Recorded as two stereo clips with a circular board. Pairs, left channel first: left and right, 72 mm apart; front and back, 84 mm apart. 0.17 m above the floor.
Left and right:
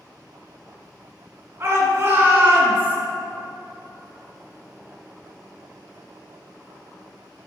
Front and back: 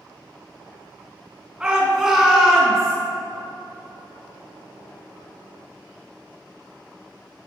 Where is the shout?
105° right, 2.0 m; by 3.0 s 65° right, 1.6 m.